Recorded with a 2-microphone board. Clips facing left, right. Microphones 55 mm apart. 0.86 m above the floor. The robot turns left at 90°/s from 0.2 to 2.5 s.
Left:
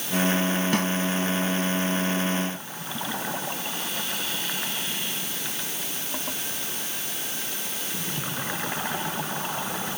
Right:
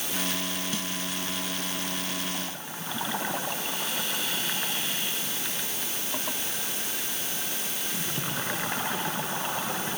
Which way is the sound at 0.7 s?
65° left (ahead or behind).